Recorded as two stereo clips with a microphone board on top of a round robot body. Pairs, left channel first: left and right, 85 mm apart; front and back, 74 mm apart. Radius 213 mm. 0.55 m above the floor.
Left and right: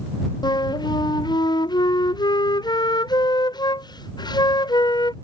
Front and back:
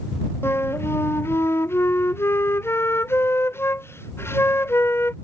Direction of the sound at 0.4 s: 55° left.